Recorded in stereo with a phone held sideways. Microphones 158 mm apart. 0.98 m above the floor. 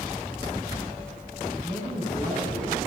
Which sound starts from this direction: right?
A man speaking, at 1.6 s.